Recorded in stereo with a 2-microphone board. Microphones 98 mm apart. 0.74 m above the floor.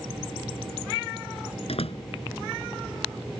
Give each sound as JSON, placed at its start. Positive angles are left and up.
{"t": 1.7, "sound": "a door slam", "side_deg": 80}